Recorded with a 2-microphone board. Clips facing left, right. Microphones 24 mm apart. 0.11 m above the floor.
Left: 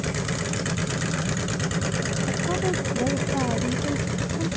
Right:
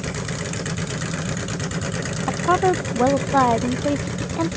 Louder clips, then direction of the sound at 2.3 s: Right 10 dB; 75° right (ahead or behind).